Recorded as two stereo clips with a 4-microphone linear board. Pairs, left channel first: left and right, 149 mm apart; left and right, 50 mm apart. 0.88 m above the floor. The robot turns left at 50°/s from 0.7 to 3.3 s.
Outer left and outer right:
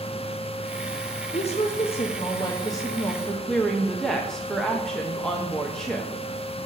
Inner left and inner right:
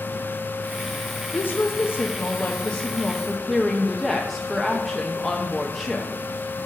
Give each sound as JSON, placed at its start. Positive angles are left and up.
{"t": 1.3, "sound": "a woman speaking", "azimuth_deg": 105, "distance_m": 0.6}